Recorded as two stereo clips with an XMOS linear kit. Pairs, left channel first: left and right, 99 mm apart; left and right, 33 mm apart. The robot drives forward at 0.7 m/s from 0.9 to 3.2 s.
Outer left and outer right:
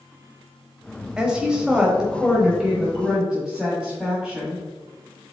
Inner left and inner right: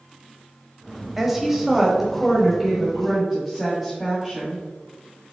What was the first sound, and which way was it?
A woman speaking, 10° right (ahead or behind).